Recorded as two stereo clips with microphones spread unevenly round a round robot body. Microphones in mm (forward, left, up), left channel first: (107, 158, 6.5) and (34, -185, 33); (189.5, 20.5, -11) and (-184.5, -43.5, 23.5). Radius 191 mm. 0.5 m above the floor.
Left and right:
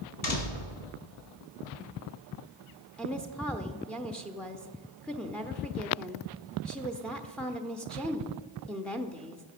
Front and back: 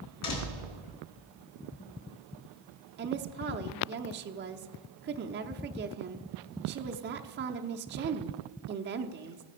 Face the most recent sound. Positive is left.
turn(degrees=155)